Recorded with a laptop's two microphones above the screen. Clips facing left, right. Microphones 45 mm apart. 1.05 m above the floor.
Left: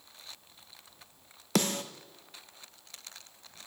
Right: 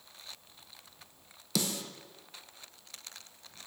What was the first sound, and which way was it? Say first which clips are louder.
A snare drum: left 5 dB; 45° left (ahead or behind).